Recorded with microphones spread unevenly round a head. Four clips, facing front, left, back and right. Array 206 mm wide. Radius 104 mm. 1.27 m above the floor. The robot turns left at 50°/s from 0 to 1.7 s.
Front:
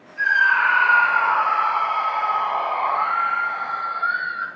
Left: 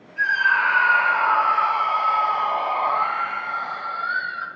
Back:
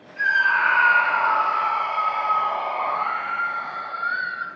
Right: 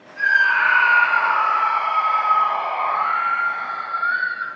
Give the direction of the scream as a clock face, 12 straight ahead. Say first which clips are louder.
Right 2 dB, front 2 dB; 5 o'clock.